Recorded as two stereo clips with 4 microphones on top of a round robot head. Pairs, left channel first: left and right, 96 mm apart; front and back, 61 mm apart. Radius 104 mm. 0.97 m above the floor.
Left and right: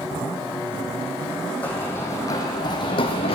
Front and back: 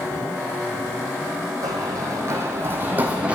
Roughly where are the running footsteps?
Behind.